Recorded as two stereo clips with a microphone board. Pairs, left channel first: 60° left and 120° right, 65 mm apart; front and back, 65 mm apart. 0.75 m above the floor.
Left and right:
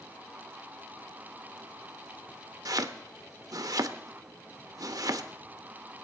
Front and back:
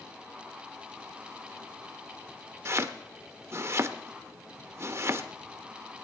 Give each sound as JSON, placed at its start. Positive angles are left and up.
{"t": 2.6, "sound": "chopping", "azimuth_deg": -135, "distance_m": 0.6}